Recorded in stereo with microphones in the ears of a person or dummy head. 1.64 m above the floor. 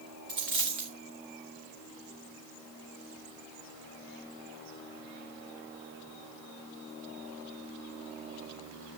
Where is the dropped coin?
20° right (ahead or behind), 0.9 m.